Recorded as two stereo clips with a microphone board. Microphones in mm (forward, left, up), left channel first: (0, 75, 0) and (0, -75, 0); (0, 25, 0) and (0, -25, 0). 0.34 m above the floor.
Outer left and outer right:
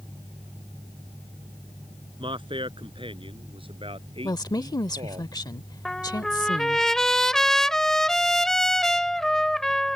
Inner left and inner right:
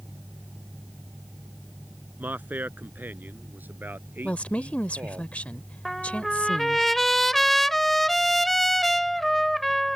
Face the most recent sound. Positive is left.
turn(degrees=5)  # may be behind; listen again after turning